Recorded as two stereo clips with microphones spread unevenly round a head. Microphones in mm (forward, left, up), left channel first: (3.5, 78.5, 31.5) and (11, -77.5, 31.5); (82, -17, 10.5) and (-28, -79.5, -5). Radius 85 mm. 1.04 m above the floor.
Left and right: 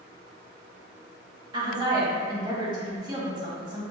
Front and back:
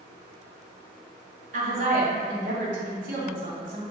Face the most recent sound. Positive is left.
turn(degrees=-150)